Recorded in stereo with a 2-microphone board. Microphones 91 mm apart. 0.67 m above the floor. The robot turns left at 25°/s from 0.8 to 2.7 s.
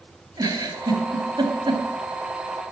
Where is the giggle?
40° right (ahead or behind), 2.5 m; by 1.8 s 65° right (ahead or behind), 2.5 m.